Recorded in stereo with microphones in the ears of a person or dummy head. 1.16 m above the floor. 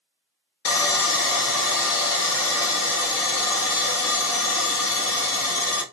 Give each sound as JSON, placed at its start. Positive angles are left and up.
{"t": 0.7, "sound": "sawing", "side_deg": 70, "distance_m": 0.9}